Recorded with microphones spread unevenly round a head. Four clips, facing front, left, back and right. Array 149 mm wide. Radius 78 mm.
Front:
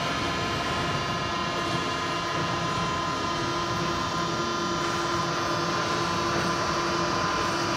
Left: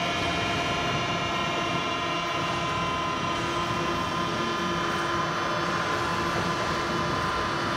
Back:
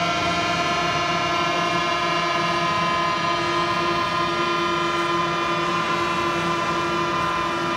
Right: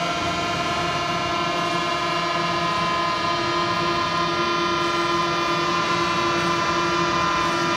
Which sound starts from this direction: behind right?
A drone, at 0.0 s.